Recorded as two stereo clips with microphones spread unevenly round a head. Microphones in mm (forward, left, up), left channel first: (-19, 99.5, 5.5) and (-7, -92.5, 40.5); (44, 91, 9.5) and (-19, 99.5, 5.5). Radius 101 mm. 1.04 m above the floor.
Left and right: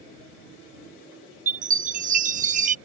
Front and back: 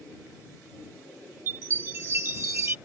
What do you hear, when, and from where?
1.5 s a chime: 125° right